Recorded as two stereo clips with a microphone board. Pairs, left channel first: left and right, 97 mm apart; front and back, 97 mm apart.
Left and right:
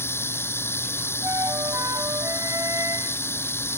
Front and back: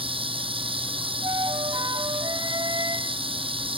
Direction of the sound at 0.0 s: 155° left.